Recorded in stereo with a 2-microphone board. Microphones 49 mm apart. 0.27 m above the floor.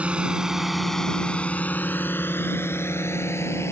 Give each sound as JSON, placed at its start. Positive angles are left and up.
{"t": 0.0, "sound": "a drone", "side_deg": -30}